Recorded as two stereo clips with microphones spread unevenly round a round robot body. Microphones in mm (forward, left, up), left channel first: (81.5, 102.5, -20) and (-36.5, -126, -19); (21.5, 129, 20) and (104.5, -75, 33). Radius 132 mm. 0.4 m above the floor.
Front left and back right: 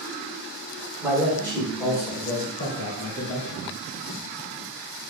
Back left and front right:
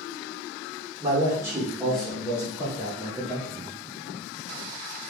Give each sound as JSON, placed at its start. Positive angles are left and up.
{"t": 1.0, "sound": "a man speaking", "azimuth_deg": -45, "distance_m": 1.4}